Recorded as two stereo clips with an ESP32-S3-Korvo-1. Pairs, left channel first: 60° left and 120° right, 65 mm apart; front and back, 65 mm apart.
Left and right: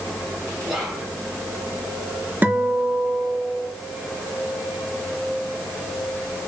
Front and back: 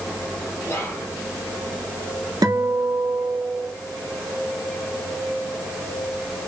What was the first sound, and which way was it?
Whispering, 35° right.